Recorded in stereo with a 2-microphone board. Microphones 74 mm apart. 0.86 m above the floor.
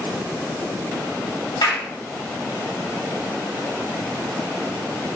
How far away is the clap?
About 1.6 m.